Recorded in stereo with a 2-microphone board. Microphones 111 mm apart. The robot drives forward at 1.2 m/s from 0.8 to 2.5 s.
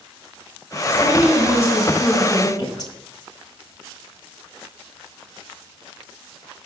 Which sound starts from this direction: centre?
A woman speaking, at 0.9 s.